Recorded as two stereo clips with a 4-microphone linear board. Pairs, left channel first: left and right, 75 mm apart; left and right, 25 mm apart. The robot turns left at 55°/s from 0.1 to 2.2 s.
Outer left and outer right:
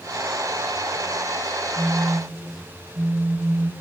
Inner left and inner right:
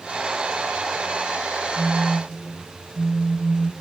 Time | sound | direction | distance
1.8 | a phone buzzing | 40° right (ahead or behind) | 0.8 m